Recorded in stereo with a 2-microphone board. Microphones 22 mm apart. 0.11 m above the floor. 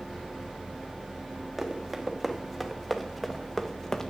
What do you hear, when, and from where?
1.6 s running footsteps: 15° right (ahead or behind), 2 m; by 4.1 s 20° left (ahead or behind), 1.4 m